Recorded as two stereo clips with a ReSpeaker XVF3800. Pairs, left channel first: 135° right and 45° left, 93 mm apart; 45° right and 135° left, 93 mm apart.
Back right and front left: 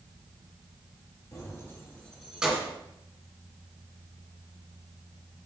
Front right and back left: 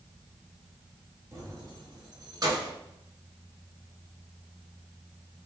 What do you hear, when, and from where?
1.3 s keys jangling: 175° right, 1.8 m; by 2.7 s 100° left, 1.3 m